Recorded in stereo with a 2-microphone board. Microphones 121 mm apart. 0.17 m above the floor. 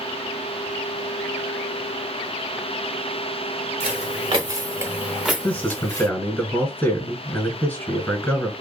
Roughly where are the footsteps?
Right.